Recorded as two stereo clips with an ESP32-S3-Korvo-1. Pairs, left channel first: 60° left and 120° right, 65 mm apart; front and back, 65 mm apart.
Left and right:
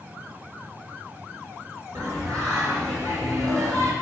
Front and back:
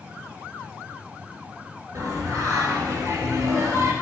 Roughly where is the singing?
Behind right.